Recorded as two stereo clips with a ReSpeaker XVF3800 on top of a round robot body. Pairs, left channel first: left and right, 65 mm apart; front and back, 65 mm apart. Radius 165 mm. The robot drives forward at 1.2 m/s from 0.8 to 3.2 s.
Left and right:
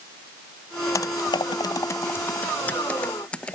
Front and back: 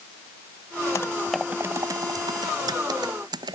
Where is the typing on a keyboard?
50° left; by 3.6 s 165° left.